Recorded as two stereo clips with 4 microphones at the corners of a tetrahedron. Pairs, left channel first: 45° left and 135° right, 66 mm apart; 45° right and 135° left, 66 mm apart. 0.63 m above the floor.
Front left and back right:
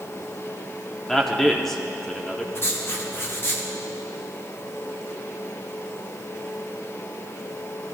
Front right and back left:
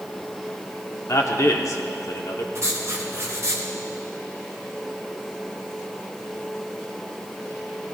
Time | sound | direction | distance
1.1 | a man speaking | 35° right | 1.1 m
2.5 | writing | 95° left | 1.4 m